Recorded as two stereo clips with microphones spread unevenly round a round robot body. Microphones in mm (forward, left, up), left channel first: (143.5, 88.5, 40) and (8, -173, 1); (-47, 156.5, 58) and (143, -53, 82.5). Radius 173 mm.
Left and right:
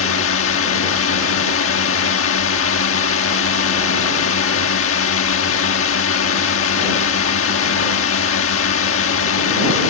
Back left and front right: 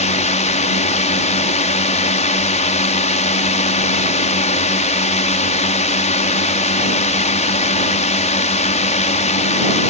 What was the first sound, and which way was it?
A drone, 85° left.